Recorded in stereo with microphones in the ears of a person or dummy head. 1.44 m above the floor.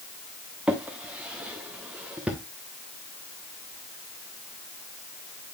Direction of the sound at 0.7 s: 5° right (ahead or behind).